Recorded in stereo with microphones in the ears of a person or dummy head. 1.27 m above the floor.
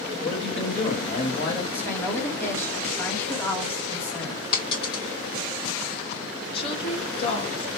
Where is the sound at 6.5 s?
35° left (ahead or behind), 1.4 m.